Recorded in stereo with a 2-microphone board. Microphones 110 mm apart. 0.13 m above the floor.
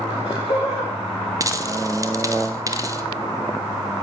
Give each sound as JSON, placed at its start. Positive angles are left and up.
{"t": 0.1, "sound": "laughter", "side_deg": 60, "distance_m": 8.0}
{"t": 1.4, "sound": "a dropped coin", "side_deg": -30, "distance_m": 0.9}